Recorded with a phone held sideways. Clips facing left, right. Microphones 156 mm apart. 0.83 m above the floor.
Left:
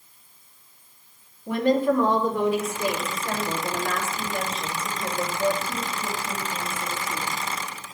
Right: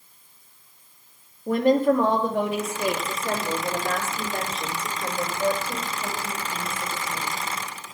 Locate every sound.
1.5 s a woman speaking: 40° right (ahead or behind), 1.3 m; by 7.3 s 65° right (ahead or behind), 5 m